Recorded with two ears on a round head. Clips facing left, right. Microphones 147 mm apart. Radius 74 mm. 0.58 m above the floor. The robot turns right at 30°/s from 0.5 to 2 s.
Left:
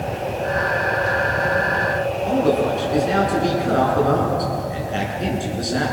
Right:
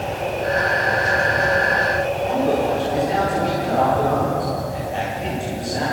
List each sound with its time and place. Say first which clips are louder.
2.3 s a man speaking: left 2 dB; 75° left (ahead or behind), 8.5 m